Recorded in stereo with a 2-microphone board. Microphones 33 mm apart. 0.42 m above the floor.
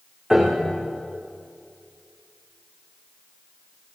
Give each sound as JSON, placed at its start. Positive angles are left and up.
{"t": 0.3, "sound": "a piano", "side_deg": -10, "distance_m": 8.5}